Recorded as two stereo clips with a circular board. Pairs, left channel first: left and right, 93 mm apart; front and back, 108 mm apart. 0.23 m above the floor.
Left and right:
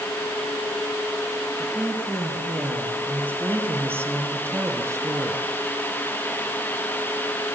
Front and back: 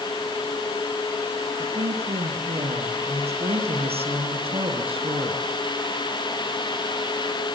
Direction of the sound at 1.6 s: 165° right.